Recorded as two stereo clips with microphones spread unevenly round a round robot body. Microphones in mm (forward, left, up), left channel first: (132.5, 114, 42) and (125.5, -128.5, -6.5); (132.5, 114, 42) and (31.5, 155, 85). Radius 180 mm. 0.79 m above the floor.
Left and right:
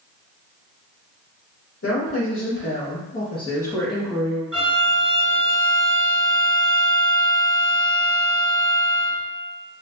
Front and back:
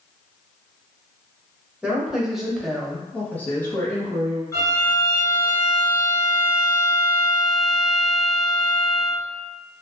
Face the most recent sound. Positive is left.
turn(degrees=10)